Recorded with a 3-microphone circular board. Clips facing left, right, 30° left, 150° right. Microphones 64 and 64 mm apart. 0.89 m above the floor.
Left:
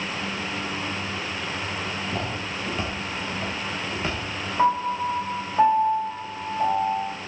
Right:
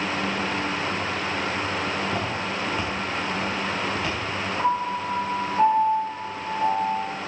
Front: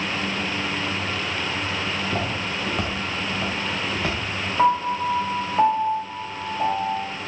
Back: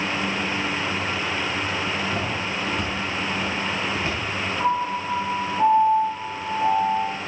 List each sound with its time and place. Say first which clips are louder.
2.0 s footsteps: right 3 dB, even; 15° right, 4 m; by 4.2 s 25° left, 4 m
4.6 s a piano: left 4 dB, front 5 dB; 20° left, 3.5 m